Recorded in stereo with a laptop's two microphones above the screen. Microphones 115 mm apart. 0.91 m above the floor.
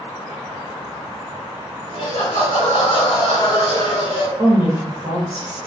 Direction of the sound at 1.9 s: 75° left (ahead or behind).